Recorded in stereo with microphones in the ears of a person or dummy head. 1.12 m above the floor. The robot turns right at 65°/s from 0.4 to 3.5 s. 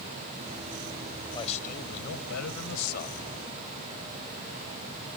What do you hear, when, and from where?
1.3 s a man speaking: 25° left; by 3.3 s 155° left